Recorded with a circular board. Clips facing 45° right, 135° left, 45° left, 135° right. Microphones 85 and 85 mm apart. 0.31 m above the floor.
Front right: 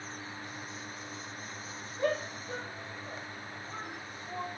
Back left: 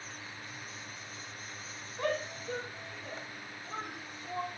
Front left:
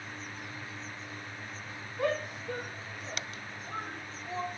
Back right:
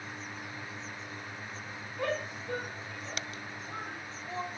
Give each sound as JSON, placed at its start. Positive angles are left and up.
{"t": 2.0, "sound": "a shout", "azimuth_deg": 130, "distance_m": 3.5}